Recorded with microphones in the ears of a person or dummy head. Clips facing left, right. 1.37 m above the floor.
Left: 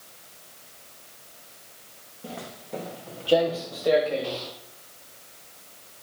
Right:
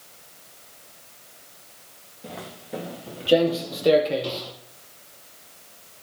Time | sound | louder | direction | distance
2.2 | footsteps | even | 5° left (ahead or behind) | 1.8 m